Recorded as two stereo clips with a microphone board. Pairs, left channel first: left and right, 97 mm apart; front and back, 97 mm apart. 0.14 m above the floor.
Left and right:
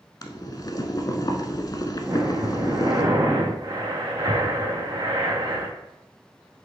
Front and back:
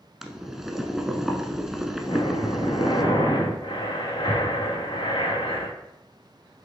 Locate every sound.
0.2 s boiling: 95° left, 0.8 m
2.0 s breathing: 35° right, 2.5 m